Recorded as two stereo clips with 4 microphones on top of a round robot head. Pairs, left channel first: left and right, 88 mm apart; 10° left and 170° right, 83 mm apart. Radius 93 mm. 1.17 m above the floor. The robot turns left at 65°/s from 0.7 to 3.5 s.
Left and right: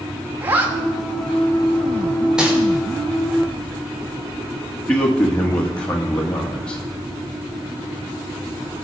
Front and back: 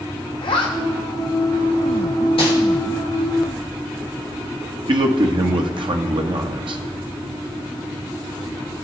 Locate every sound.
0.4 s a zipper: 20° right, 1.6 m; by 2.3 s 125° right, 1.6 m
2.4 s crumpling: 10° right, 3 m; by 2.5 s 15° right, 3 m
4.9 s a man speaking: 170° left, 1.4 m